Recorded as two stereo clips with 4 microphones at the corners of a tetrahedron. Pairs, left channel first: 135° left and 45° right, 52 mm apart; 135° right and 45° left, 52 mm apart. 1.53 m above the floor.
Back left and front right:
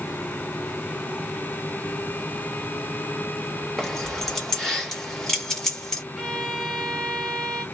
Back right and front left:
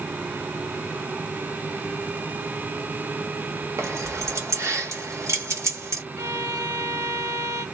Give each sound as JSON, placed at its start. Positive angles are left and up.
{"t": 3.8, "sound": "keys jangling", "azimuth_deg": 55, "distance_m": 1.1}
{"t": 6.2, "sound": "a violin", "azimuth_deg": 40, "distance_m": 0.9}